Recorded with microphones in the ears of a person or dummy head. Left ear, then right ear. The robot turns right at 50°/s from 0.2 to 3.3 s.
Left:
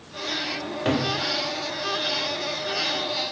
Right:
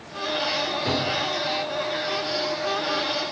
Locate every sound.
0.6 s a cupboard door: 5° left (ahead or behind), 0.7 m; by 1.1 s 25° left (ahead or behind), 0.7 m